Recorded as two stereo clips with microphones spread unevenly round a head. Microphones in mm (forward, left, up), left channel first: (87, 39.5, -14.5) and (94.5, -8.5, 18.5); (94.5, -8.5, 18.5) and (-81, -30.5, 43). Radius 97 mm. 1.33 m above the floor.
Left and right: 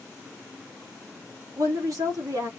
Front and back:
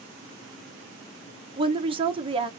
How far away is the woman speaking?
About 1.2 m.